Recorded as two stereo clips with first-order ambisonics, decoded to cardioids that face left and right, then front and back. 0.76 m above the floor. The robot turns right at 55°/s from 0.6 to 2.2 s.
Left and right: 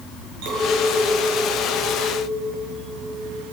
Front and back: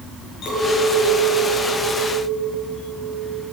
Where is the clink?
60° right, 7 m; by 3.4 s 30° left, 7 m.